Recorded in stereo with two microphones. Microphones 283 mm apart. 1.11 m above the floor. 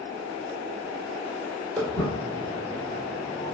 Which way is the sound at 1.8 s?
Centre (ahead or behind).